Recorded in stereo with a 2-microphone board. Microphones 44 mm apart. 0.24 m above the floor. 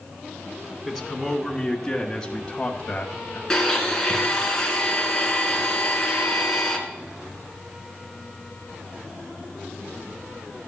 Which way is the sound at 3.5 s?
15° left (ahead or behind).